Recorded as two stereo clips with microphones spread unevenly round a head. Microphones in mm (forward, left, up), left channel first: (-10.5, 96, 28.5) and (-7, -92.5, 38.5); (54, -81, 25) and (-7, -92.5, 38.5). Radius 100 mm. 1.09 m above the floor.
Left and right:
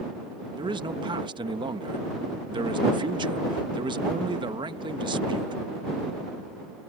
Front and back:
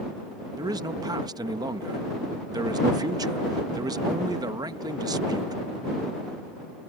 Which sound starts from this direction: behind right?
A man speaking, at 0.6 s.